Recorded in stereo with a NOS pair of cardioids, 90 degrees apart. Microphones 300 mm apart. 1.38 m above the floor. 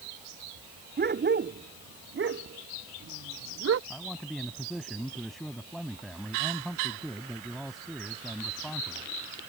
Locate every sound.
1.0 s a dog barking: 35° right; by 3.8 s 50° right
3.9 s a man speaking: straight ahead